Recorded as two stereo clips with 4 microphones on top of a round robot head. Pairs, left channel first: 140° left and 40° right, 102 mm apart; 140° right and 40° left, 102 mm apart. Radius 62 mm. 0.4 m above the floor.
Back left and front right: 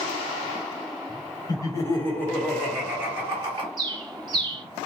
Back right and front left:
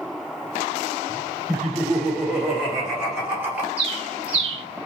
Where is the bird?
10° left, 0.7 m.